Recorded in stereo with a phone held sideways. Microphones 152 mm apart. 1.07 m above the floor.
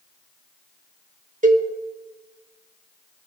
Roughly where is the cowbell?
Right.